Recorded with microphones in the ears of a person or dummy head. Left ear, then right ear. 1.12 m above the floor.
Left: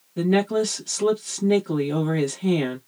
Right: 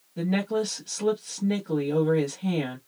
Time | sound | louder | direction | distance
0.2 | a woman speaking | left 6 dB | 10° left (ahead or behind) | 1.1 m